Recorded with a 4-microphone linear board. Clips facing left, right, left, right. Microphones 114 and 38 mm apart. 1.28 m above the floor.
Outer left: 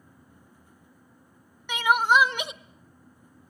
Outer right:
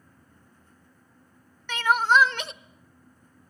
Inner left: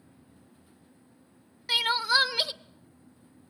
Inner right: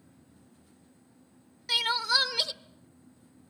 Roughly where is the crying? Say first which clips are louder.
Even, inner left 2 dB; centre.